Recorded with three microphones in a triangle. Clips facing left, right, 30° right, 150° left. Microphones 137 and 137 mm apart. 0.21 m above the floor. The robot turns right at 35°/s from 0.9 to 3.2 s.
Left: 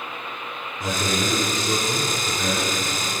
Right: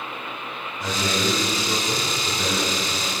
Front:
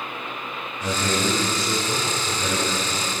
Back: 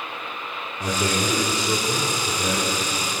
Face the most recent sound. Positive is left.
turn(degrees=-115)